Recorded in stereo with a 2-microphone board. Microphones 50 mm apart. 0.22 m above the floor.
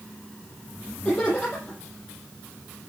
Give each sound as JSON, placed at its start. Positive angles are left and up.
{"t": 1.1, "sound": "laughter", "side_deg": 25, "distance_m": 6.0}